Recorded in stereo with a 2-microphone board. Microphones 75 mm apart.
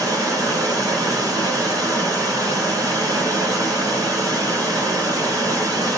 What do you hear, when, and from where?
0.0 s running water: 40° right (ahead or behind), 1.5 m